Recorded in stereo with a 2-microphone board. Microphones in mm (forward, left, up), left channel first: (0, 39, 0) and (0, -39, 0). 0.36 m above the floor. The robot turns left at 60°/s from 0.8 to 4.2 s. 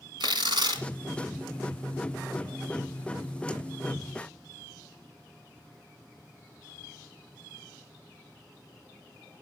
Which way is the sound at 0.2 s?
75° right (ahead or behind).